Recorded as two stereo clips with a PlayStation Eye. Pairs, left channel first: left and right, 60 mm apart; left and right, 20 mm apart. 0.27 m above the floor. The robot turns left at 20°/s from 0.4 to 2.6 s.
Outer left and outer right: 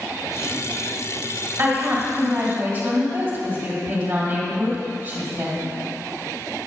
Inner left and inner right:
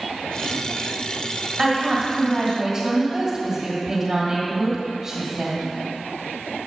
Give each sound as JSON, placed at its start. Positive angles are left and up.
{"t": 1.6, "sound": "a woman speaking", "side_deg": -35, "distance_m": 1.8}